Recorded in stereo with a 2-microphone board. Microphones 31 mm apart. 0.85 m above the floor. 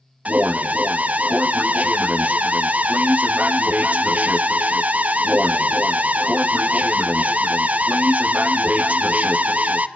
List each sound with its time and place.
0.2 s an alarm: 55° right (ahead or behind), 0.9 m